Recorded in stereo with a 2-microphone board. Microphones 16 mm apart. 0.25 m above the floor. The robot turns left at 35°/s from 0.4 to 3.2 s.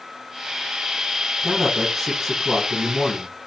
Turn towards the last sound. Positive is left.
turn(degrees=120)